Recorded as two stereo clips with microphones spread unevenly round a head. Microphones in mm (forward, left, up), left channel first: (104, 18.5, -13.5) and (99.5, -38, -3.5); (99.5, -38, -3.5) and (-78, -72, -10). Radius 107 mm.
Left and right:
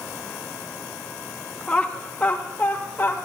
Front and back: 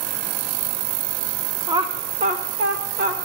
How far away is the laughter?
About 0.7 m.